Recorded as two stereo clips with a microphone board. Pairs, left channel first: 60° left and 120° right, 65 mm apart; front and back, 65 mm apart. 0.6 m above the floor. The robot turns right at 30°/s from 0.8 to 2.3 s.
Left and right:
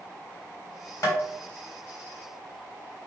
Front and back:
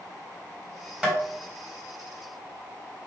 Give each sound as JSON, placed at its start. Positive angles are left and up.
{"t": 1.0, "sound": "tapping", "azimuth_deg": 100, "distance_m": 3.5}